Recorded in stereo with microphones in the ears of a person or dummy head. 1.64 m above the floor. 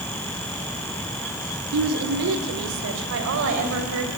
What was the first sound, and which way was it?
A woman speaking, 70° right (ahead or behind).